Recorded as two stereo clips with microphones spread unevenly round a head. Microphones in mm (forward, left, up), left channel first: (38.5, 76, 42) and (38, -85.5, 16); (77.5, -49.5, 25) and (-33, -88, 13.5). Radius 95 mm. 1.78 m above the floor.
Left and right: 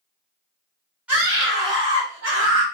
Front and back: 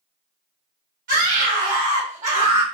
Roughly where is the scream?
Behind.